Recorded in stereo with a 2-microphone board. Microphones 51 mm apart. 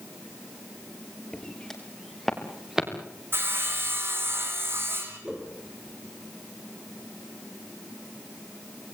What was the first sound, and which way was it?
Footsteps, 10° left (ahead or behind).